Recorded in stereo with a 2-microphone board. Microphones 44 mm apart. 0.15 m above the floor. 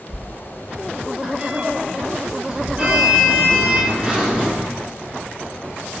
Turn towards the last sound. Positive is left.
turn(degrees=-20)  # may be behind; listen again after turning